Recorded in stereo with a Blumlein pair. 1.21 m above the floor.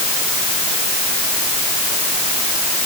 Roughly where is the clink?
No clink in this recording.